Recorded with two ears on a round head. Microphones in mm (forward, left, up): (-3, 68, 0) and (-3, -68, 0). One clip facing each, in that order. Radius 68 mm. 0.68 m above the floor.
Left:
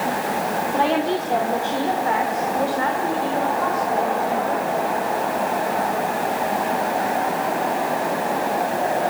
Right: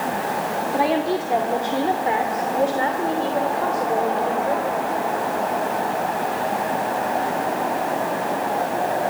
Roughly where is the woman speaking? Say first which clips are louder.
Even; centre.